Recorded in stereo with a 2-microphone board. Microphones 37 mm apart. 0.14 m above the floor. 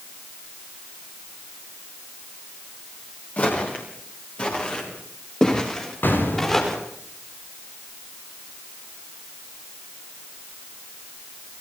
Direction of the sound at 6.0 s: 60° left (ahead or behind).